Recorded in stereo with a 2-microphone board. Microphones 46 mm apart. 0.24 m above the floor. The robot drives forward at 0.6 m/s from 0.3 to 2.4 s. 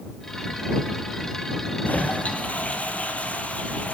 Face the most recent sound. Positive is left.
turn(degrees=30)  # may be behind; listen again after turning